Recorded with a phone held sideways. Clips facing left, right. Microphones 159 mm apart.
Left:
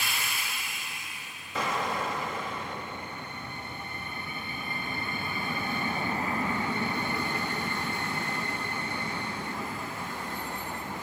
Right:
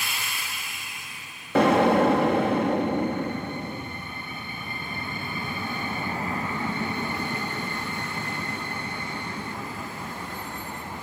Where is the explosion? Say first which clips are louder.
Right 13 dB; 65° right (ahead or behind).